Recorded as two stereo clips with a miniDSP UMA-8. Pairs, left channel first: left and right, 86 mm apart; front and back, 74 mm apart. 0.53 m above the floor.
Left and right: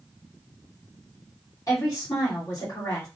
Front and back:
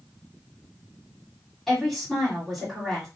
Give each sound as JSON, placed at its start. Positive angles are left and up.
{"t": 1.7, "sound": "a woman speaking", "azimuth_deg": 85, "distance_m": 1.5}